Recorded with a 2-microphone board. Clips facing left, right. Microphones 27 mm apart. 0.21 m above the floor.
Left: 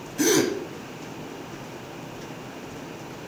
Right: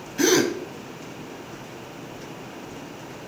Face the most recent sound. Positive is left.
turn(degrees=-20)  # may be behind; listen again after turning